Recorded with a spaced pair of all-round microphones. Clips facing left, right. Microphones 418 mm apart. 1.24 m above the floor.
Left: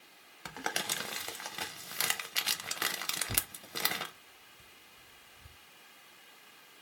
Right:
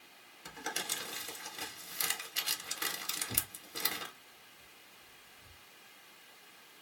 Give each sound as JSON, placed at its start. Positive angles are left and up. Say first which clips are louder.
{"t": 0.5, "sound": "crumpling", "louder": "left 4 dB", "side_deg": 80, "distance_m": 0.6}
{"t": 3.3, "sound": "tearing paper", "louder": "left 1 dB", "side_deg": 35, "distance_m": 1.2}